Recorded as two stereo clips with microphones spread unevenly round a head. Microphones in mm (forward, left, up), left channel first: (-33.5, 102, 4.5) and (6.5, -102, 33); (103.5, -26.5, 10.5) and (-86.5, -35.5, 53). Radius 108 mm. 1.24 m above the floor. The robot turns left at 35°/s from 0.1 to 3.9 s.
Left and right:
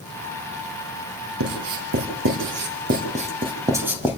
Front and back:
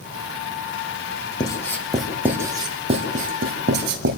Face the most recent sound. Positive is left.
turn(degrees=-160)